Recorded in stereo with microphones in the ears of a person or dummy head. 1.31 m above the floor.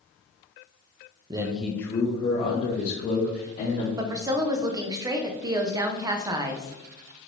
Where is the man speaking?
30° right (ahead or behind), 0.6 m; by 3.9 s 35° left (ahead or behind), 2.5 m.